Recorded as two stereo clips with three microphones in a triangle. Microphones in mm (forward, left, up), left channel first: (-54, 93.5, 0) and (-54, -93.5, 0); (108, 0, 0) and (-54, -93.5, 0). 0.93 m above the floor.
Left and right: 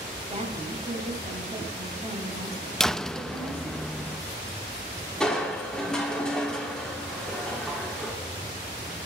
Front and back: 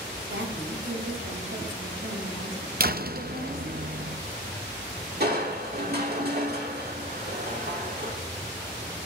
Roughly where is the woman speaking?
Behind right.